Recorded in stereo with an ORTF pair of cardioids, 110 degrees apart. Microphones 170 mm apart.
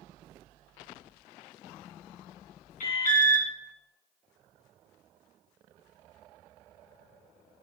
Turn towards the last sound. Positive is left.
turn(degrees=50)